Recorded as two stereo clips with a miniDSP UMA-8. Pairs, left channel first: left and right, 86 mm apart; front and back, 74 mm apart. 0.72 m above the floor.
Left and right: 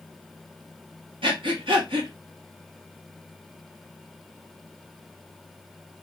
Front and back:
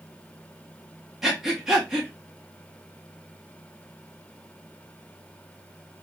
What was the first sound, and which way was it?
Breathing, 95° right.